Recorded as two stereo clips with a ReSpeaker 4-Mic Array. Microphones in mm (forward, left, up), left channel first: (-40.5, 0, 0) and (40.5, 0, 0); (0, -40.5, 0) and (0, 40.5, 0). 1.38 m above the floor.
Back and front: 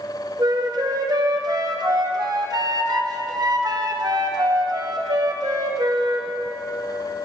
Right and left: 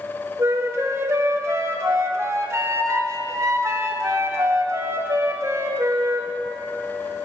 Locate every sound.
0.4 s a flute: 35° left, 0.8 m